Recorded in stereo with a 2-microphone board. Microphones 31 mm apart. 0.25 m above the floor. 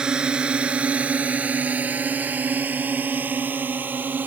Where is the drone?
25° right (ahead or behind); by 4.3 s 80° right.